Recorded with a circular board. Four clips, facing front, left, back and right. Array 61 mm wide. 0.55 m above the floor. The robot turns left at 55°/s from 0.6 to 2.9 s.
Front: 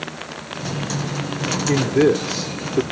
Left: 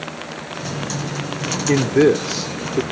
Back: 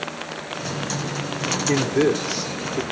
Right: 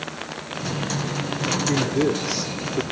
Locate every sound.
1.7 s a man speaking: 95° left, 1.0 m; by 2.8 s 35° left, 1.0 m